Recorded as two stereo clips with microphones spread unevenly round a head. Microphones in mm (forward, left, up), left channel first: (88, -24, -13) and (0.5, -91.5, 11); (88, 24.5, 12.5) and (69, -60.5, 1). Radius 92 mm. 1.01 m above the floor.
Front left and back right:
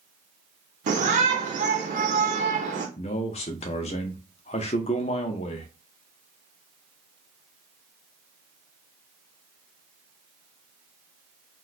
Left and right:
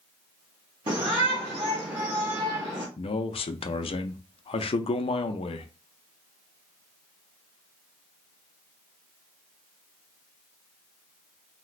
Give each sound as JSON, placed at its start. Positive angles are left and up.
{"t": 0.9, "sound": "a shout", "azimuth_deg": -145, "distance_m": 0.6}
{"t": 3.0, "sound": "a man speaking", "azimuth_deg": 65, "distance_m": 0.5}